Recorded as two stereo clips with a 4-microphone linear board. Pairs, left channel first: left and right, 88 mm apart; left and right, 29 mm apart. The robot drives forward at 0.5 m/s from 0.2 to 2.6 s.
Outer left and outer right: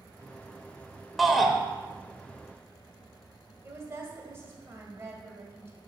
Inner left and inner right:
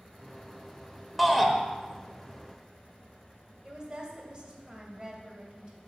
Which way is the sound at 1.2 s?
Centre (ahead or behind).